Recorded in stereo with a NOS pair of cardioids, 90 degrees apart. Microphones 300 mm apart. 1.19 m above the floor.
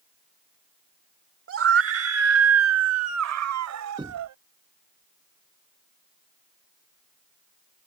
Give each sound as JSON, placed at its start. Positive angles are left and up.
{"t": 1.5, "sound": "a scream", "azimuth_deg": -45}
{"t": 4.0, "sound": "knocking", "azimuth_deg": -15}